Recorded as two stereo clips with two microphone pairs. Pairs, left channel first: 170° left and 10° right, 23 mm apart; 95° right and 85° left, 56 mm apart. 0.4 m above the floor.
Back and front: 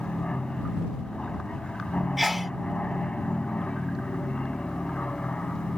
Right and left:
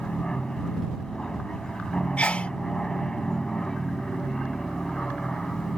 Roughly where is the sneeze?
Right.